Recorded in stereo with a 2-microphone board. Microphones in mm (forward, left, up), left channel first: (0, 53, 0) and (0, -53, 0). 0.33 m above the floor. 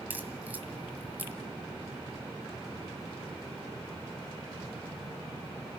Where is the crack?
15° right (ahead or behind), 2.0 m.